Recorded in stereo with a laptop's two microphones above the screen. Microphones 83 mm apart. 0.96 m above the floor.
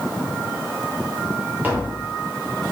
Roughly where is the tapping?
Right.